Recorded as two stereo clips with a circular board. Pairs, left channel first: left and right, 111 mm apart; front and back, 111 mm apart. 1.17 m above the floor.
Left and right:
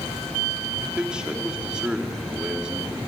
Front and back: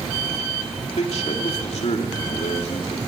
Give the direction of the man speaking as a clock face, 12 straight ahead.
12 o'clock.